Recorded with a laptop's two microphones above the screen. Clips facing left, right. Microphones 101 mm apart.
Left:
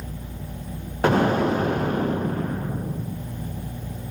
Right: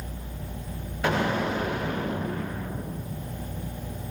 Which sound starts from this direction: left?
An explosion, at 1.0 s.